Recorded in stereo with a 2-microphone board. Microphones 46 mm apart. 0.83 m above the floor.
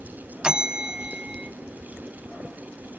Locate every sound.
0.4 s a bell: 20° right (ahead or behind), 0.8 m